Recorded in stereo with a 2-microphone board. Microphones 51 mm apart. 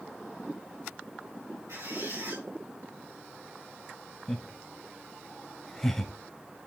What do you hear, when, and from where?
1.7 s a squeak: 80° right, 7 m
4.3 s laughter: 5° left (ahead or behind), 1.0 m